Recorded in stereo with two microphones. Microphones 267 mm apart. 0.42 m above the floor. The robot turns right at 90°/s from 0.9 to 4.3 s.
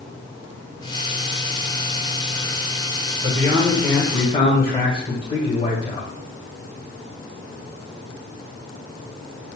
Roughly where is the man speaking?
Ahead right.